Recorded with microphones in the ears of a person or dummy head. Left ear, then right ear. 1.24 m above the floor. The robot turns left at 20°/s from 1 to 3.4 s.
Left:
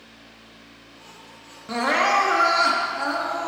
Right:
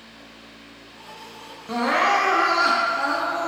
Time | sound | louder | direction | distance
1.7 | crying | even | 45° left | 0.5 m